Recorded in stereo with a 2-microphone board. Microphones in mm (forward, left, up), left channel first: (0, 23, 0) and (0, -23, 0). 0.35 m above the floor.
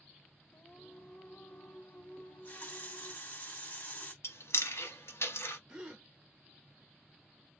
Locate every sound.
0.5 s singing: 50° left (ahead or behind), 1.1 m
2.2 s a running tap: 40° left (ahead or behind), 1.6 m
4.2 s chewing: 80° left, 0.7 m
5.7 s a gasp: 15° right (ahead or behind), 1.3 m